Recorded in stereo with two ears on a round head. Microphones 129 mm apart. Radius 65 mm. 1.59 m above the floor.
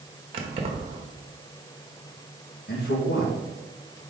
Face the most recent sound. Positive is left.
turn(degrees=80)